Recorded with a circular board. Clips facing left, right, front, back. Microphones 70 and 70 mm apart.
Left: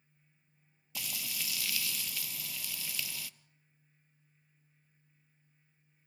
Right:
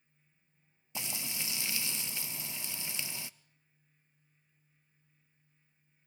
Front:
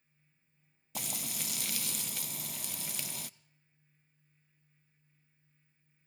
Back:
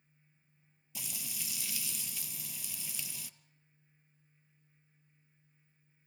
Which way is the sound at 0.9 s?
25° right.